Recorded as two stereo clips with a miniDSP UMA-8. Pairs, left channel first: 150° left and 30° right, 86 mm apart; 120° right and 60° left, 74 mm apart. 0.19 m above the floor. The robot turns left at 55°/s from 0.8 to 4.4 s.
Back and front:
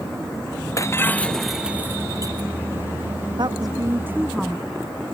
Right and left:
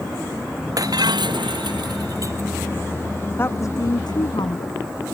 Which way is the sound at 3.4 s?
60° right.